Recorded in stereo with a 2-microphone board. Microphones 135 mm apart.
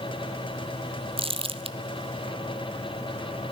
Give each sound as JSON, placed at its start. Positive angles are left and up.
{"t": 1.2, "sound": "crumpling", "side_deg": -45, "distance_m": 0.5}